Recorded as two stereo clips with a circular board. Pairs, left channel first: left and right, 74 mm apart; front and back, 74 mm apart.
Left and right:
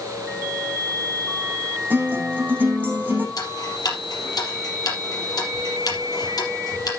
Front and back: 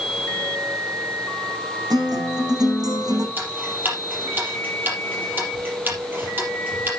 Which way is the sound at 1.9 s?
155° right.